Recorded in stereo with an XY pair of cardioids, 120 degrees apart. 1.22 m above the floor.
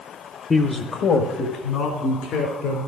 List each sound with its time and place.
0.5 s a man speaking: 25° left, 0.7 m; by 2.8 s 70° left, 4 m